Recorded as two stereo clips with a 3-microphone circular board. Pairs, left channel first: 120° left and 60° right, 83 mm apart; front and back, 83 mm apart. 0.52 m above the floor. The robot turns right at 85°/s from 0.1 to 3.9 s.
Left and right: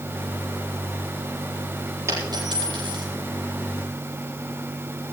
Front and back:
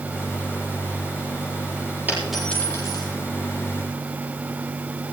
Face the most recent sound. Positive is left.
turn(degrees=40)